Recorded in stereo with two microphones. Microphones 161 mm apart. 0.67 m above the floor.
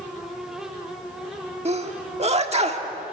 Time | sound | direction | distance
1.6 | a sneeze | 40° right (ahead or behind) | 1.6 m